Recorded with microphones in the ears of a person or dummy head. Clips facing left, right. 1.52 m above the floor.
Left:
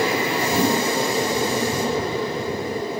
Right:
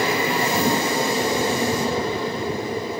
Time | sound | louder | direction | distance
0.5 | a whoosh | left 3 dB | 85° left | 4.5 m